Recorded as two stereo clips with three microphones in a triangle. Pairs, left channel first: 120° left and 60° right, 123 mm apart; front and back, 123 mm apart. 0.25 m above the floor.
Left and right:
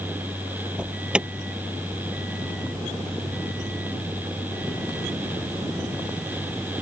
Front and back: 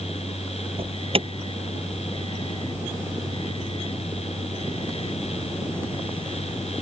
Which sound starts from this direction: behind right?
An alarm, at 0.8 s.